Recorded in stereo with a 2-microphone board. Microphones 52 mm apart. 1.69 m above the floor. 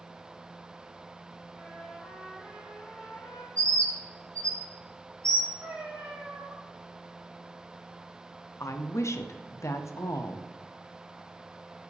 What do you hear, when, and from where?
1.5 s a trumpet: 50° left (ahead or behind), 2.5 m
3.6 s a bird: 80° right, 1.0 m
5.6 s a cat meowing: 50° right (ahead or behind), 1.8 m
8.6 s a woman speaking: 60° left (ahead or behind), 0.5 m